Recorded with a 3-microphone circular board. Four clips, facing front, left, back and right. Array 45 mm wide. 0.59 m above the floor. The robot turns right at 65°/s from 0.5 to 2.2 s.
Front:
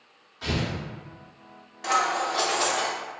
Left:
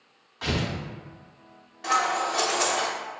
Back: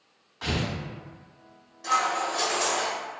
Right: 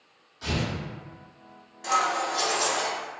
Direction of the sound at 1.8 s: 20° left.